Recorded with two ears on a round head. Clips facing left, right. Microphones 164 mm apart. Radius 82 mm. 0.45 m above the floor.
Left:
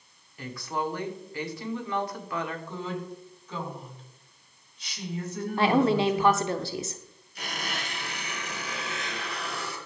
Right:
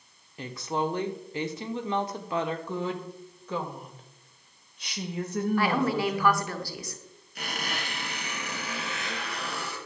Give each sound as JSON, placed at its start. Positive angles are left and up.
{"t": 0.4, "sound": "a woman speaking", "side_deg": -20, "distance_m": 1.1}
{"t": 2.7, "sound": "a woman speaking", "side_deg": -50, "distance_m": 2.5}
{"t": 5.6, "sound": "a woman speaking", "side_deg": 20, "distance_m": 0.9}
{"t": 7.3, "sound": "a squeak", "side_deg": -50, "distance_m": 5.5}